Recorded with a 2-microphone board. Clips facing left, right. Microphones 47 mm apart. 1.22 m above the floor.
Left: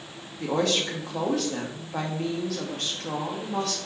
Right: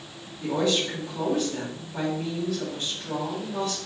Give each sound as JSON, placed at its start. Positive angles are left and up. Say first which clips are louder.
{"t": 0.4, "sound": "a woman speaking", "louder": "even", "side_deg": 80, "distance_m": 2.0}